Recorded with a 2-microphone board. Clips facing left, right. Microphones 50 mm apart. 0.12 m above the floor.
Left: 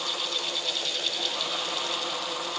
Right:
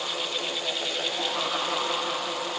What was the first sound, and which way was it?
Only background noise.